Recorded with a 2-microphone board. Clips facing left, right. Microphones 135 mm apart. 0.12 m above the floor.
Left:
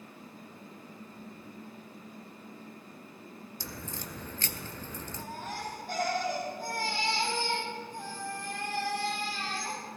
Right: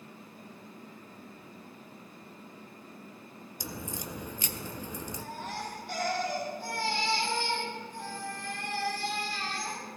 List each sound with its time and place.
3.6 s a crack: 15° right (ahead or behind), 0.6 m
5.2 s a baby crying: 45° left (ahead or behind), 4 m